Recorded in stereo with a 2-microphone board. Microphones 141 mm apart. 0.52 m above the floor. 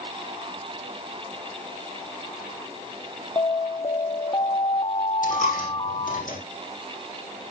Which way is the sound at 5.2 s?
65° left (ahead or behind).